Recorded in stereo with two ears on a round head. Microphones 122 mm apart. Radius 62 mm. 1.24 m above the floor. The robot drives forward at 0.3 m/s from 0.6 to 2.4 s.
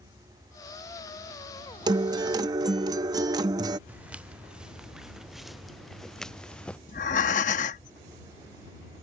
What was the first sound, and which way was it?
A guitar, 30° right (ahead or behind).